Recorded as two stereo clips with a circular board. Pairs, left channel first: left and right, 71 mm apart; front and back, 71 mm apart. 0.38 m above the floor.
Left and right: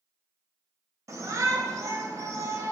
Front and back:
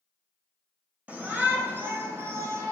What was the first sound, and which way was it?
A shout, 115° right.